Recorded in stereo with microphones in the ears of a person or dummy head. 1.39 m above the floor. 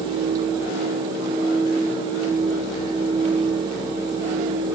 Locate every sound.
Only background noise.